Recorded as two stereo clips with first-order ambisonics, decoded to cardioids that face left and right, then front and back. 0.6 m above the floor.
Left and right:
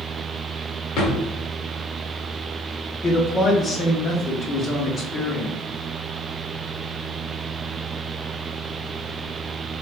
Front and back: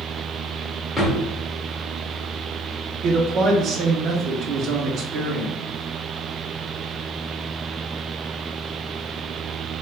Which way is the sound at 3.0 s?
150° left.